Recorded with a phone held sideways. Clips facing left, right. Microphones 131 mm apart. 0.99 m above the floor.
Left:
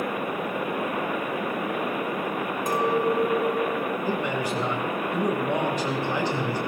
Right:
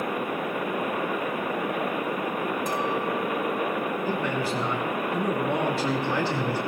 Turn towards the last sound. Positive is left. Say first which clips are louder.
# even
turn(degrees=15)  # may be behind; listen again after turning